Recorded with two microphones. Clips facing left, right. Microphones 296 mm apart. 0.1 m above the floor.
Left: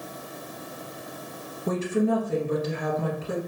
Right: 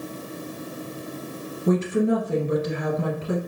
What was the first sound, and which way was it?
A woman speaking, 20° right (ahead or behind).